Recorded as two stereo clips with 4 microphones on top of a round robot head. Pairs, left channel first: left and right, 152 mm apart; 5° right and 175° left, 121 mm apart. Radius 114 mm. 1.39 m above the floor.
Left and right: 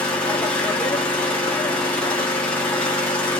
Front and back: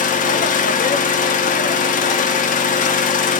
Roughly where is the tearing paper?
I don't hear tearing paper.